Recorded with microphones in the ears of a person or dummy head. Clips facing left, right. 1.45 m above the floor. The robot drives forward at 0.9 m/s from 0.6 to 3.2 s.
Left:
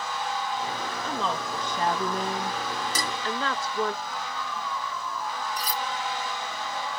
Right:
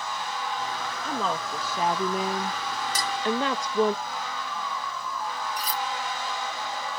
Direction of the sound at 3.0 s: 70° left (ahead or behind).